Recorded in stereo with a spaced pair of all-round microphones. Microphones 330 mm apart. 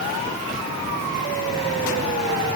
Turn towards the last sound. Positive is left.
No sound to turn to.